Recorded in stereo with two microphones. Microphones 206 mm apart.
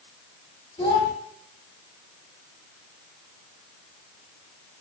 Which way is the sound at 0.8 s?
25° left (ahead or behind).